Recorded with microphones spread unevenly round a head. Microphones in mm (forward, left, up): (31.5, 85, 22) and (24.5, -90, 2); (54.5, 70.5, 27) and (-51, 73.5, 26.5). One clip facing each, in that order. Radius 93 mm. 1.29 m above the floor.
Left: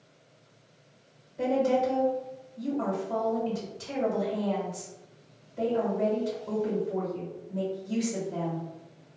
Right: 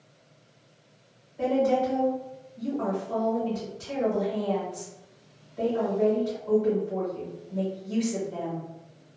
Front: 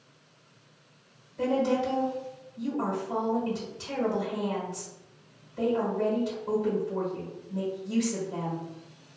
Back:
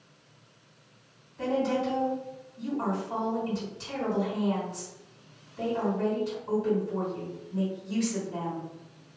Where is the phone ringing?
No phone ringing in this recording.